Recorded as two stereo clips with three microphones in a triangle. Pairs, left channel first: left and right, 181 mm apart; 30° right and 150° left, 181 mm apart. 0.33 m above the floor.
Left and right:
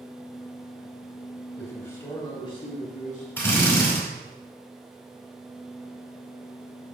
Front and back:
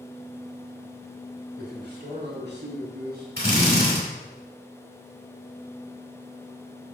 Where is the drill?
170° left, 3.5 m.